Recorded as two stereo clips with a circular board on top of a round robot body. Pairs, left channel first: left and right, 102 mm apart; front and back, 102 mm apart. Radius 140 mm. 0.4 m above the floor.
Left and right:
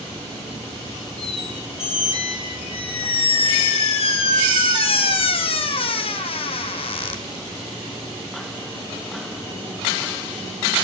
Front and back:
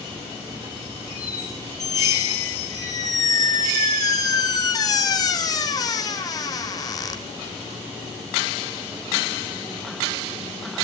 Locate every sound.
1.2 s a squeak: 55° left, 1.7 m